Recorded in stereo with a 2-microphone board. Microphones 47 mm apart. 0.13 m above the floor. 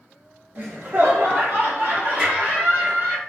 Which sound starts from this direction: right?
Laughter, at 0.6 s.